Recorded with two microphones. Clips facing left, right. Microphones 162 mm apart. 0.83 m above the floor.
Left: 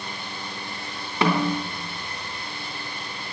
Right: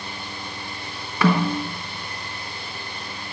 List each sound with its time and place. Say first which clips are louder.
1.2 s a snare drum: right 2 dB; 20° left (ahead or behind), 3 m